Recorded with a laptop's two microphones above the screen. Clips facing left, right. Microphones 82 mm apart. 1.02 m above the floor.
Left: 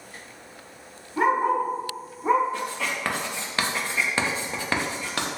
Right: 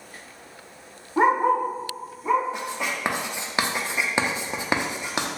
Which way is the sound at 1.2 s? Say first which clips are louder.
Right 2 dB; 30° right (ahead or behind).